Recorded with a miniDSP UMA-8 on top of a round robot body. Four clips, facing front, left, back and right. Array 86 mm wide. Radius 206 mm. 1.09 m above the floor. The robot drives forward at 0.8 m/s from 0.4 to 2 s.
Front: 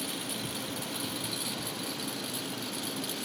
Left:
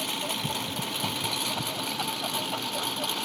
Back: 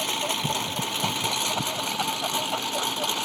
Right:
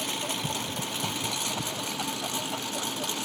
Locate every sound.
0.0 s a lawn mower: 175° left; by 3.3 s 165° left